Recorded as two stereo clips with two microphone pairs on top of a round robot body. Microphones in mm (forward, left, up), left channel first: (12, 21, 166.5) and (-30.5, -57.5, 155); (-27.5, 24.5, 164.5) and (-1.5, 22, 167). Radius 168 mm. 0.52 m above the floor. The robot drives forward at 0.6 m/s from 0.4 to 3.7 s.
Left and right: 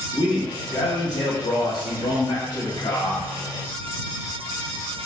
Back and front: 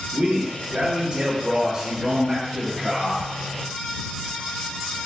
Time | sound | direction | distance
0.1 | a man speaking | 30° left | 2.0 m